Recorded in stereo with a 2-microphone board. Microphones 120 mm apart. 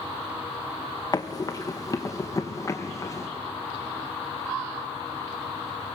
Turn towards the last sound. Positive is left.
turn(degrees=30)  # may be behind; listen again after turning